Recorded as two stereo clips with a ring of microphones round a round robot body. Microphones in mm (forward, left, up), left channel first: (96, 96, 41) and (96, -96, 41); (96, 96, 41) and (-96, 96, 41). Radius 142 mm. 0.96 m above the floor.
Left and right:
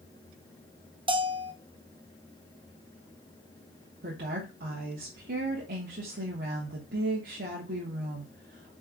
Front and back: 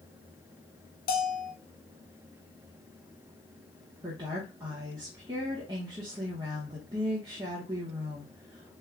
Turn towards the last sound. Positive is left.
turn(degrees=-115)